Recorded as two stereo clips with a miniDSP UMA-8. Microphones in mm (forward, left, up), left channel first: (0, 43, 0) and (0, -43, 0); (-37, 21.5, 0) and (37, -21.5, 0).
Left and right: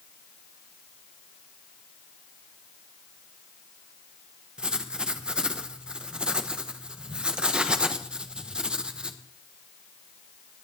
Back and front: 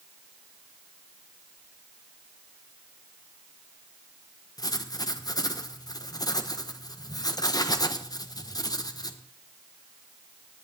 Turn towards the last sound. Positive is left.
turn(degrees=-170)